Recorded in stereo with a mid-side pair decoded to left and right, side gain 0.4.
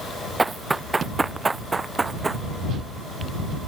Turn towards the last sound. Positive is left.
turn(degrees=-30)